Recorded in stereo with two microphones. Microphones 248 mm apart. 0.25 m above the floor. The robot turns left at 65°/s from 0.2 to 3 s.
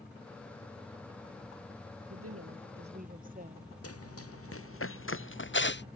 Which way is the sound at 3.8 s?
75° left (ahead or behind).